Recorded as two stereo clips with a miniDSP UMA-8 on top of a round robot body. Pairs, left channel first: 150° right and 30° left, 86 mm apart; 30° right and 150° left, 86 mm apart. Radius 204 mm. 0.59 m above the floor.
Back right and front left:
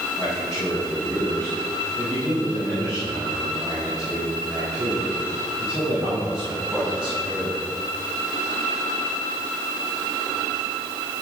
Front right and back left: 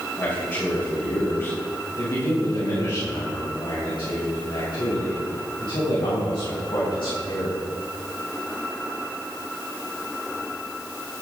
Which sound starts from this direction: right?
A man speaking, at 0.2 s.